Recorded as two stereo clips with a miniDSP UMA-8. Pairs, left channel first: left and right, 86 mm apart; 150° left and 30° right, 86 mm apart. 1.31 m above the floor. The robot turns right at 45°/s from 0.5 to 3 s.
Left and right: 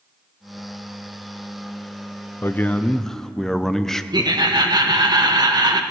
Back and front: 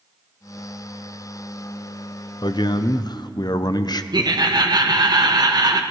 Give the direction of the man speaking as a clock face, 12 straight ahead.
7 o'clock.